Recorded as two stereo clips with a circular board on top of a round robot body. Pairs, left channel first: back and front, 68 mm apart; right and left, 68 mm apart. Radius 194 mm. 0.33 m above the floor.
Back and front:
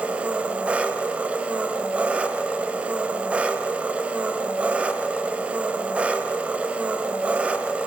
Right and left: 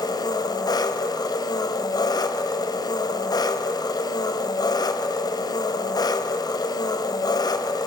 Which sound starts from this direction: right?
An engine running, at 0.0 s.